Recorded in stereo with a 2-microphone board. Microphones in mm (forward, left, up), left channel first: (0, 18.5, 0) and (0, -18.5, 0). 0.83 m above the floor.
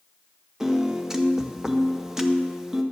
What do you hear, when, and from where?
0.6 s a piano: 15° right (ahead or behind), 0.8 m